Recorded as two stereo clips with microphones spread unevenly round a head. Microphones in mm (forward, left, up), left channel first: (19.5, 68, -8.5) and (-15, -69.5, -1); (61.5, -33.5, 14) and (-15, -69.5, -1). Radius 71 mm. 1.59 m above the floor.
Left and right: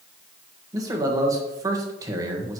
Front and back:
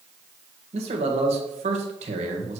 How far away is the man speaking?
About 1.5 m.